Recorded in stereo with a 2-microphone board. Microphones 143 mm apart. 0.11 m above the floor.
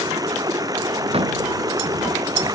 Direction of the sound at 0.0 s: 25° right (ahead or behind).